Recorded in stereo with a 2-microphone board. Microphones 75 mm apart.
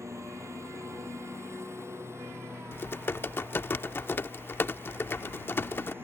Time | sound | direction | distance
0.0 | a lawn mower | 40° right (ahead or behind) | ?
2.7 | typing on a keyboard | 30° left (ahead or behind) | ?